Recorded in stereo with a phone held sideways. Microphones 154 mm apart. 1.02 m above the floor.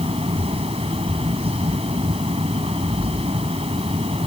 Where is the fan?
40° right (ahead or behind).